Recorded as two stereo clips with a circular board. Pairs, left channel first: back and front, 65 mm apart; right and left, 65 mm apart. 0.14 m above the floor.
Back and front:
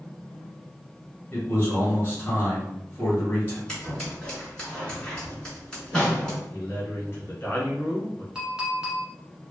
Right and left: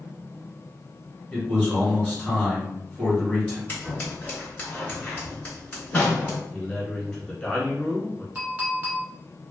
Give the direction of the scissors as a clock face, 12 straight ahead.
4 o'clock.